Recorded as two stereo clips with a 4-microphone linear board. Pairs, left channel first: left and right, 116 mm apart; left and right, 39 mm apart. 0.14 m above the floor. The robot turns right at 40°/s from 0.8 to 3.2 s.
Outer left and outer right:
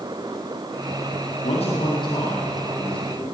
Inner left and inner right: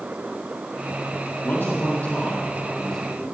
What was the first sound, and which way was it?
A man speaking, 110° left.